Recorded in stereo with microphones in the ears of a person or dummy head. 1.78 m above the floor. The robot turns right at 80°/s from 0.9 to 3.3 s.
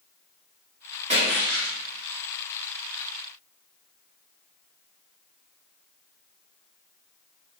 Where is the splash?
145° right, 0.9 m; by 1.8 s 95° right, 0.9 m.